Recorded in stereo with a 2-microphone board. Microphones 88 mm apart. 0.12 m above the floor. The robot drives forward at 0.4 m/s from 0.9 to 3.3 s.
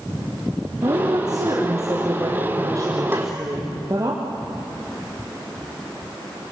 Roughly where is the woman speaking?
Right.